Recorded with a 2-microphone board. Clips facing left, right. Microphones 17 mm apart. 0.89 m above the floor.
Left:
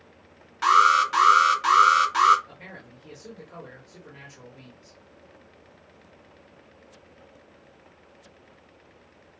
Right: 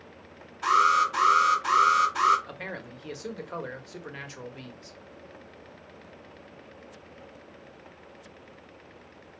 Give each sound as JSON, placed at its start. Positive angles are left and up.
{"t": 0.6, "sound": "an alarm", "side_deg": 65, "distance_m": 3.0}
{"t": 2.5, "sound": "a man speaking", "side_deg": -50, "distance_m": 1.4}